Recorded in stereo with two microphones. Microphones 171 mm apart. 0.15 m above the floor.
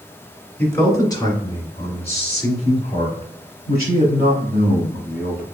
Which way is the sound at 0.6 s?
10° left (ahead or behind).